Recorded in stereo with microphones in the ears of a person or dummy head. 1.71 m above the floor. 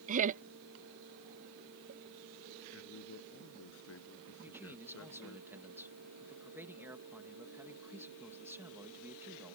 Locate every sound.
0.1 s laughter: 40° right (ahead or behind)
2.7 s a man speaking: 75° left (ahead or behind)
4.4 s a man speaking: 15° right (ahead or behind)